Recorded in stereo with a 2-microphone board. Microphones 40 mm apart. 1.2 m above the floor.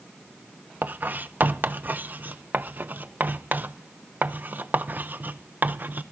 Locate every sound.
0.8 s writing: 45° right (ahead or behind), 0.7 m